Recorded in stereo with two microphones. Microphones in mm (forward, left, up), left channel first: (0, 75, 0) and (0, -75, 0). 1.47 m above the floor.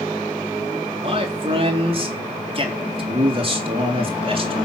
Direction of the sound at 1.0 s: 40° right (ahead or behind).